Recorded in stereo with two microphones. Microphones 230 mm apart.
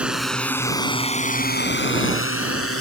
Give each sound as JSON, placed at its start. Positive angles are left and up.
{"t": 0.0, "sound": "a drone", "side_deg": -5}